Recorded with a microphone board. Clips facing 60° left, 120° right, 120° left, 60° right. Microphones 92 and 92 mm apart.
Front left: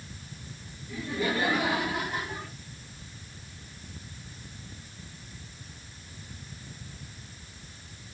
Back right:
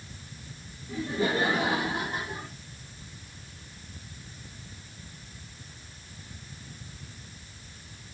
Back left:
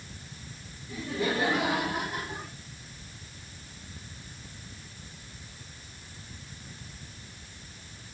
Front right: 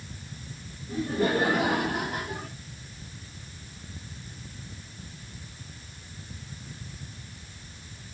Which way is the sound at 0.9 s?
75° right.